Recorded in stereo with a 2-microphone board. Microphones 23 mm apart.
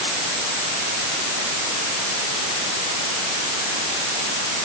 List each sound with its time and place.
Only background noise.